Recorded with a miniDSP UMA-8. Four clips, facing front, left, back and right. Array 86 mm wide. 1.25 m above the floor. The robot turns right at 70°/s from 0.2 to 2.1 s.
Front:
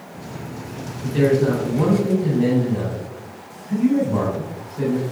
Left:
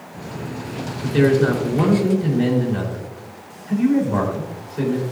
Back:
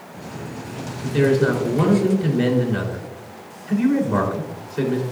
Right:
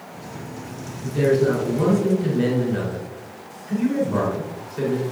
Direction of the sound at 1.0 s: 100° left.